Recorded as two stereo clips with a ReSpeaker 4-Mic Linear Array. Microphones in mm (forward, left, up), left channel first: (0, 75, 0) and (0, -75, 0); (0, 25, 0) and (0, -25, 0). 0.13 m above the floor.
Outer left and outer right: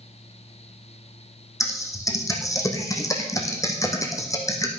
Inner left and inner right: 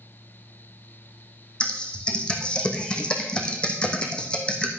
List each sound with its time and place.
1.6 s typing on a keyboard: 20° left (ahead or behind), 1.8 m